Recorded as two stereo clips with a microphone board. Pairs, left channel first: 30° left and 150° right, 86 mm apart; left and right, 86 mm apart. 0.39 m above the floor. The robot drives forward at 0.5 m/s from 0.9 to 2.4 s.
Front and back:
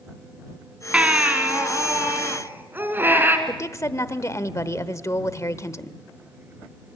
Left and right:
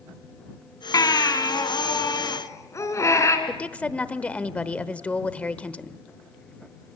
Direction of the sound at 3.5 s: 25° left.